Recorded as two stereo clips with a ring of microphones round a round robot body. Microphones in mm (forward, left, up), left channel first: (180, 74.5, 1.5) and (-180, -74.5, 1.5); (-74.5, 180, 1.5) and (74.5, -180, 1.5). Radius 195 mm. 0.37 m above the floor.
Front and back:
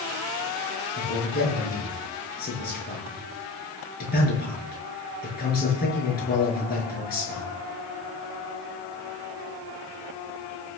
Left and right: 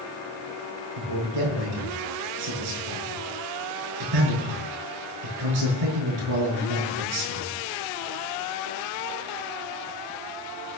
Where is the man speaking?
45° right, 6 m.